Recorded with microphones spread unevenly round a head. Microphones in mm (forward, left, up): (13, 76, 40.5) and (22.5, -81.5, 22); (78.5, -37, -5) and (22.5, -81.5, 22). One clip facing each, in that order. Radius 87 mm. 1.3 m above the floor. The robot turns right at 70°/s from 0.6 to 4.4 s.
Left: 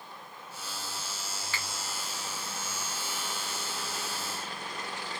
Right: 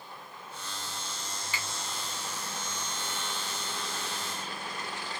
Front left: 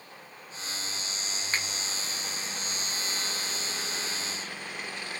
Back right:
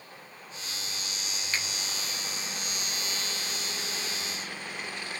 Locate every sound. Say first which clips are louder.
1.5 s a finger snap: right 1 dB, front left 2 dB; 15° right, 2.5 m; by 1.7 s 5° right, 2.5 m